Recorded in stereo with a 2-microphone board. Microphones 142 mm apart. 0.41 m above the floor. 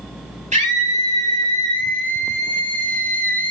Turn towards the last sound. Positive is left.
turn(degrees=-80)